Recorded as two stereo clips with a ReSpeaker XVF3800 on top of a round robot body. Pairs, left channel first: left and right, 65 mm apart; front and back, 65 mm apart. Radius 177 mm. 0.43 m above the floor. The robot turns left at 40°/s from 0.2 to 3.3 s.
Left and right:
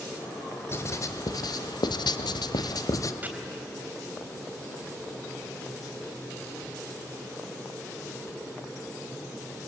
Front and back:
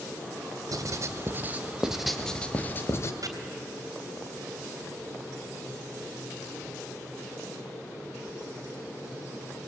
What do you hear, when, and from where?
0.7 s writing: 145° left, 0.8 m; by 3.1 s 50° left, 0.8 m
3.2 s chopping: 150° right, 3.5 m; by 3.3 s 155° right, 3.5 m